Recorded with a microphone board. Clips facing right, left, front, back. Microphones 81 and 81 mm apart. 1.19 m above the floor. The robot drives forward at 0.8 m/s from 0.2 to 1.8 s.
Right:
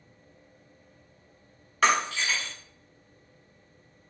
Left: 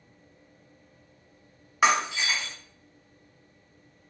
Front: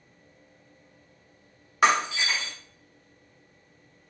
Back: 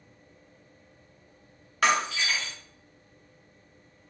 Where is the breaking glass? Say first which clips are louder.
Left 1 dB, front 3 dB; 35° left, 0.7 m.